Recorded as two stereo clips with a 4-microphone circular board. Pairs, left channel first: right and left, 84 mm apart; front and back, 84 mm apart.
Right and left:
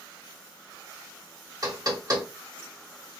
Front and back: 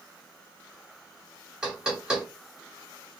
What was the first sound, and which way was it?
Knocking, 105° left.